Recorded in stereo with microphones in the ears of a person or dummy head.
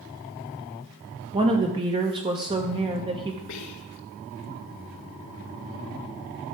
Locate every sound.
1.3 s a woman speaking: 20° right (ahead or behind), 1.6 m
3.5 s whispering: 80° left, 1.9 m